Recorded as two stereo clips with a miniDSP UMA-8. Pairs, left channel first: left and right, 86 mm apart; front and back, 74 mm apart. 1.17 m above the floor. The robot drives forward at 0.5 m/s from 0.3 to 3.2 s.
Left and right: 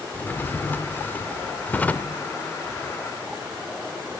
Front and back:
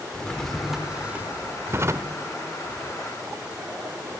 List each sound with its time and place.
0.1 s a drawer: 65° left, 0.8 m; by 2.2 s 160° left, 1.1 m